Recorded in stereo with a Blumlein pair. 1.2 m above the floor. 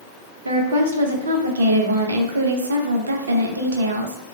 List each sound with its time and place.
0.5 s a woman speaking: 70° right, 0.7 m